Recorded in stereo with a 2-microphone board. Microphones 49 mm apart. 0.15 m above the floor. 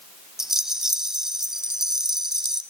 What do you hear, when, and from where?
0.4 s a rattle: 10° right (ahead or behind), 1.3 m